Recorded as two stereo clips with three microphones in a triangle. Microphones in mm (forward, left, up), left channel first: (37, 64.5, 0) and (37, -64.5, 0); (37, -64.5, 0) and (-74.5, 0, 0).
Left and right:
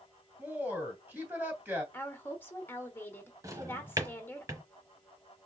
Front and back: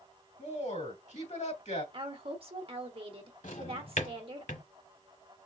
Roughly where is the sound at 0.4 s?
Ahead.